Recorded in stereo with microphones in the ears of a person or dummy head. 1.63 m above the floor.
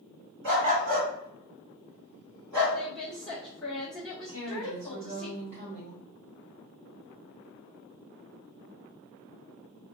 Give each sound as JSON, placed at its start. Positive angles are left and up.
{"t": 0.4, "sound": "a dog barking", "side_deg": -40, "distance_m": 1.7}
{"t": 2.7, "sound": "a woman speaking", "side_deg": 10, "distance_m": 1.1}
{"t": 4.3, "sound": "a woman speaking", "side_deg": -40, "distance_m": 1.4}